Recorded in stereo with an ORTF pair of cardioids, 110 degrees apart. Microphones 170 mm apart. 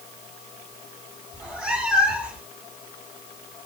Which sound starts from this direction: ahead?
A cat meowing, at 1.3 s.